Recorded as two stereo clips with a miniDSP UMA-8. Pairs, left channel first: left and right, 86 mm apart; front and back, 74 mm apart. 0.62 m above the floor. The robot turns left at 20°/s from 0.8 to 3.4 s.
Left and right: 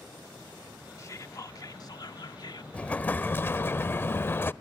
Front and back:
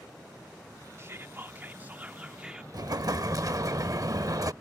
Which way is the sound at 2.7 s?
165° left.